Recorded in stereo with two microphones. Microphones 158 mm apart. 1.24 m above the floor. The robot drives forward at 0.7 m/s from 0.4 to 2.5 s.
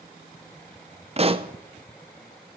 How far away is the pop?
About 0.7 m.